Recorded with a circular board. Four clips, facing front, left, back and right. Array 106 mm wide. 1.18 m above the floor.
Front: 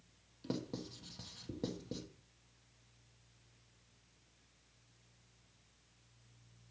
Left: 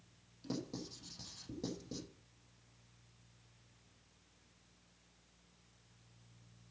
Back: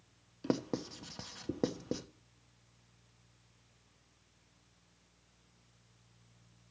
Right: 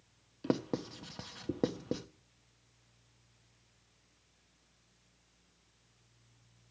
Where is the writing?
130° right, 1.1 m.